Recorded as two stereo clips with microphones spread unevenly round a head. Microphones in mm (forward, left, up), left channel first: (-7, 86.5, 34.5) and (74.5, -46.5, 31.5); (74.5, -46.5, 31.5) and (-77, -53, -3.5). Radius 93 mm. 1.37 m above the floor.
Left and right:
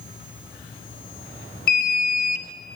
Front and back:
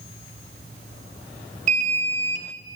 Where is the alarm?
145° left, 0.8 m.